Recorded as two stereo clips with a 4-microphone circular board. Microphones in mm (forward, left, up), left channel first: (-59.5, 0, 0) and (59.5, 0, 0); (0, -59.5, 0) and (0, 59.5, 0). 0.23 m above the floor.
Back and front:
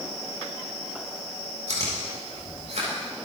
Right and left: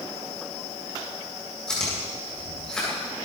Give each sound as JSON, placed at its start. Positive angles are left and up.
{"t": 1.7, "sound": "chewing", "azimuth_deg": -5, "distance_m": 8.0}